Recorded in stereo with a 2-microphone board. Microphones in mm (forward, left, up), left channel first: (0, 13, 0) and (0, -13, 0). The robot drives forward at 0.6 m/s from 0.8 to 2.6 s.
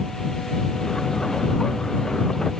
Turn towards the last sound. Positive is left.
No sound to turn to.